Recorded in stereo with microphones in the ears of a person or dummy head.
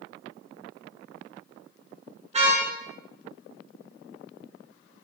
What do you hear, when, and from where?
2.3 s a car horn: 30° right (ahead or behind), 9.5 m